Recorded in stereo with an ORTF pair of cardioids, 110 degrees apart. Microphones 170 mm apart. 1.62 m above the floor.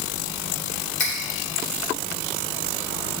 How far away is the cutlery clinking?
About 2.5 m.